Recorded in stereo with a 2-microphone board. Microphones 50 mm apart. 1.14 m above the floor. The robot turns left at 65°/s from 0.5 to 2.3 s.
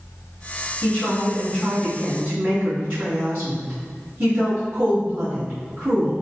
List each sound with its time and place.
0.8 s a woman speaking: 50° left, 1.8 m; by 6.1 s 50° right, 1.8 m